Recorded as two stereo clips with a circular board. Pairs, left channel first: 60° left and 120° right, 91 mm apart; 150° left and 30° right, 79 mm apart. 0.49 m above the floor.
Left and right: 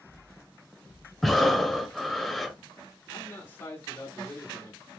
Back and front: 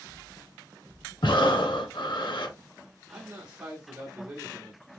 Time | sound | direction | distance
1.2 | breathing | 150° left | 0.6 m
3.1 | a man speaking | 30° left | 1.0 m